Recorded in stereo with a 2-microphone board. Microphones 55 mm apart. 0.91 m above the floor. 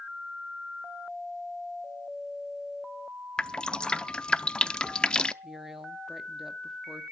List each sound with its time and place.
3.4 s dripping: 20° left (ahead or behind), 0.6 m
5.4 s a woman speaking: 5° right (ahead or behind), 1.7 m